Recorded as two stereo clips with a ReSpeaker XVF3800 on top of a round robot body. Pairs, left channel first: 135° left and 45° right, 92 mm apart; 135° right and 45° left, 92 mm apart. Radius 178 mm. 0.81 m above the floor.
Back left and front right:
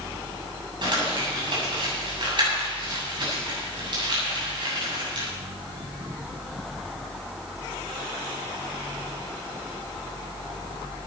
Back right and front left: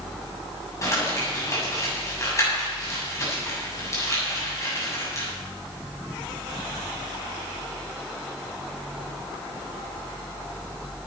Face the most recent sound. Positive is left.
turn(degrees=-80)